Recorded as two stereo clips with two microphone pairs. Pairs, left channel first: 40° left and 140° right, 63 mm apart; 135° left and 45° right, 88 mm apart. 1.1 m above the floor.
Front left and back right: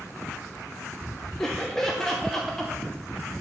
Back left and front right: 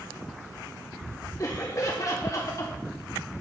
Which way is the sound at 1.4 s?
120° left.